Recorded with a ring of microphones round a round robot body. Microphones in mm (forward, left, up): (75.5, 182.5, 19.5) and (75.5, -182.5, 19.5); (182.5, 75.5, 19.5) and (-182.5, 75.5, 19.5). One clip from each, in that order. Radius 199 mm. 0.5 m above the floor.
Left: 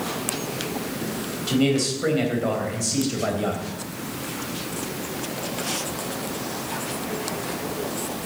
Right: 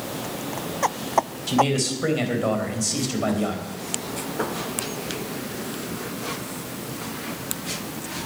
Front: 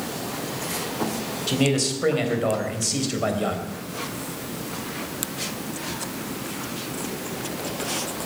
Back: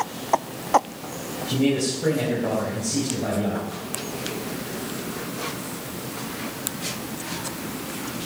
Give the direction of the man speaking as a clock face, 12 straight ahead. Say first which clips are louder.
Right 1 dB, even; 1 o'clock.